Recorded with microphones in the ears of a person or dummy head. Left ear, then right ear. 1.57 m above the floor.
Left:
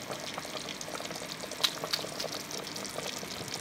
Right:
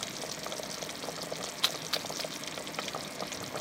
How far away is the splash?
About 1.3 m.